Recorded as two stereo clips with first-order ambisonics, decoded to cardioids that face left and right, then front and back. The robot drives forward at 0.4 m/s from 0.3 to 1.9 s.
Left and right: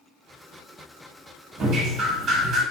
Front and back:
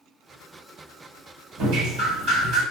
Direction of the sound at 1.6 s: 145° right.